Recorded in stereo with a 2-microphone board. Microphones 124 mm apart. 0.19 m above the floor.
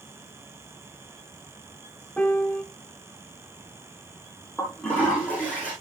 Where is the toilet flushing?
10° left (ahead or behind), 8 m.